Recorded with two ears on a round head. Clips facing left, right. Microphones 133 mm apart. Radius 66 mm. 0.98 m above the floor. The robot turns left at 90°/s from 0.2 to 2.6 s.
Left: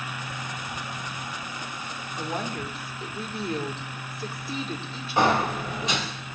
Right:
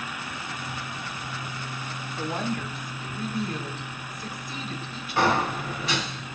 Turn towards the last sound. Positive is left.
turn(degrees=20)  # may be behind; listen again after turning